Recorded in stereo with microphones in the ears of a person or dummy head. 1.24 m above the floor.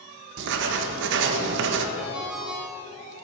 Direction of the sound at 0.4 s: 70° right (ahead or behind).